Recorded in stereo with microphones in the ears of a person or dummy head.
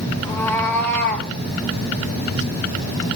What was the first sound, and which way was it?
A cat meowing, 15° left (ahead or behind).